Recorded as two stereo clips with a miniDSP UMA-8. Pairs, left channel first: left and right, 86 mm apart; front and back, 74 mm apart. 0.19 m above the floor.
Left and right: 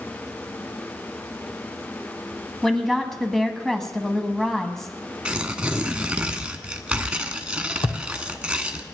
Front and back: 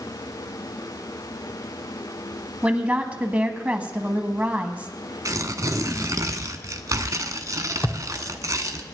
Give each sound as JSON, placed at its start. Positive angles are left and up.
{"t": 2.6, "sound": "a woman speaking", "azimuth_deg": 165, "distance_m": 1.4}
{"t": 5.2, "sound": "tearing paper", "azimuth_deg": -165, "distance_m": 1.1}
{"t": 7.8, "sound": "a thud", "azimuth_deg": 70, "distance_m": 1.2}